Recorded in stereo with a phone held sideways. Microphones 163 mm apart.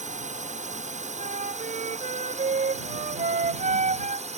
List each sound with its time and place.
0.0 s a drone: 50° right (ahead or behind); by 4.4 s 45° right (ahead or behind)
1.2 s a flute: 55° right (ahead or behind)